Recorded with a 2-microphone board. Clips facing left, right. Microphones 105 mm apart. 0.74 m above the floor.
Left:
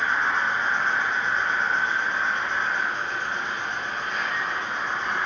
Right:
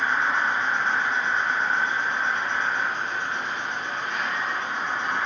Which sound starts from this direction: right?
An insect, at 0.0 s.